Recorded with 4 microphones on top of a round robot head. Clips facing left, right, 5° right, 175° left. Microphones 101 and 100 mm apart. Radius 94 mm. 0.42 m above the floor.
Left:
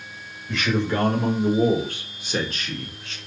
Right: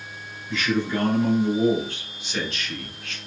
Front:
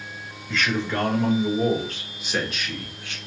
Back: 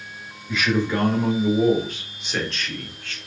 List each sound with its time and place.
0.5 s a man speaking: 100° left, 2 m; by 3.2 s 55° left, 1.2 m